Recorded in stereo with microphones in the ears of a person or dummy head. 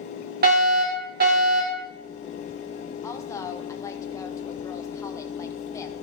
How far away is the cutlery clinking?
No cutlery clinking in this recording.